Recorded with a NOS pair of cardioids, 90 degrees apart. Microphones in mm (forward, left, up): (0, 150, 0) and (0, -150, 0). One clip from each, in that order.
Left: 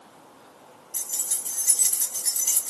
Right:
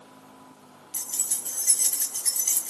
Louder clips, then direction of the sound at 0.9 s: Even; 10° left.